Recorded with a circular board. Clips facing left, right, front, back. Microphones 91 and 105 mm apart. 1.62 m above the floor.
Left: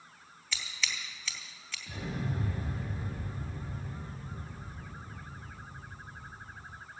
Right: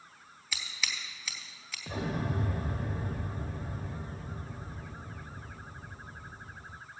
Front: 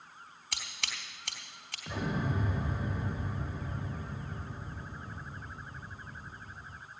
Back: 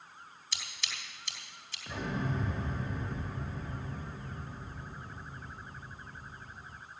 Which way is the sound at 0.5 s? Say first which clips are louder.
Even, front 2 dB; 5° right.